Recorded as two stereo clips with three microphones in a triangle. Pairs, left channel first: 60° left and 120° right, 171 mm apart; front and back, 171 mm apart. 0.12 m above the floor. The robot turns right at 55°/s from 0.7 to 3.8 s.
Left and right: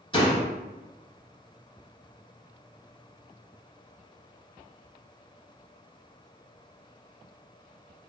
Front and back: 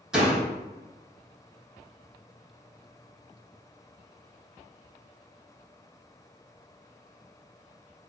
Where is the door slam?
95° left, 1.1 m.